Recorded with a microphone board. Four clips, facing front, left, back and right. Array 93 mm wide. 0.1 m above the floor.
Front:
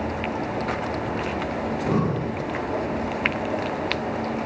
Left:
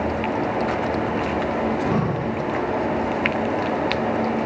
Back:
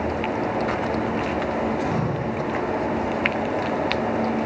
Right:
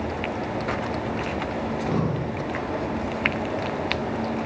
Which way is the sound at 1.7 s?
55° left.